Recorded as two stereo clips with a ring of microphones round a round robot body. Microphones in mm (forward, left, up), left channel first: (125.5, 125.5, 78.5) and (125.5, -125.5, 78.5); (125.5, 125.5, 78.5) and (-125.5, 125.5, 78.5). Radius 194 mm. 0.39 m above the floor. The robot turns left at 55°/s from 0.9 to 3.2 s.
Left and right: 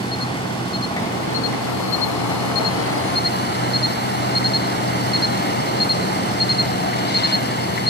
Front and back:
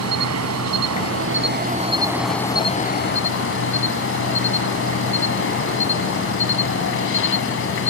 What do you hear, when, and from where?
0.0 s an insect: 165° left; by 7.9 s 40° left